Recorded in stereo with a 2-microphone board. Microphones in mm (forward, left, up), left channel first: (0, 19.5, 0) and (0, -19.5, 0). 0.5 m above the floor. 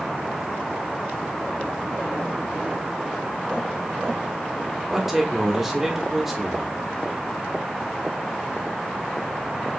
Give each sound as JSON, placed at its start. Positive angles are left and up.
{"t": 4.9, "sound": "a man speaking", "side_deg": -10, "distance_m": 0.9}